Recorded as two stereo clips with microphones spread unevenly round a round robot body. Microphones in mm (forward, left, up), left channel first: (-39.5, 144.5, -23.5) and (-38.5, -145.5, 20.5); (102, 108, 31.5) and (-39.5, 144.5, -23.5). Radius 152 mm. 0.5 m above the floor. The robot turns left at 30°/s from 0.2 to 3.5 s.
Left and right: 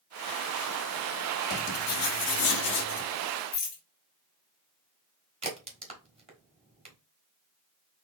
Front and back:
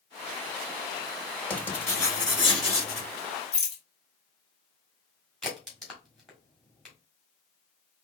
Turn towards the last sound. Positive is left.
turn(degrees=-150)